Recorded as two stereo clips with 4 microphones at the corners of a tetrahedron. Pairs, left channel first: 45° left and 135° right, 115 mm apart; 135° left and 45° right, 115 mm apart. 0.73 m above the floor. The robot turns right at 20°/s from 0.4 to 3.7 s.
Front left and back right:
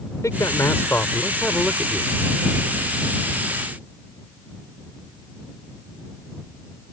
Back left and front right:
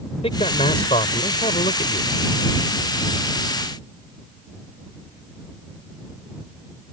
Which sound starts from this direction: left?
A man speaking, at 0.2 s.